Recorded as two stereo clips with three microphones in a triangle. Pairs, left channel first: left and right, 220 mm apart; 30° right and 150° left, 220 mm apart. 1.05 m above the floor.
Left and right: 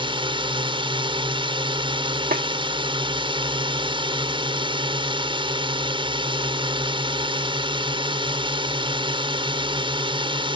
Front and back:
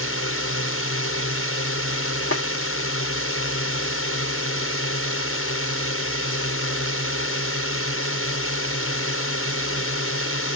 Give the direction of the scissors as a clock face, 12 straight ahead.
I don't hear scissors.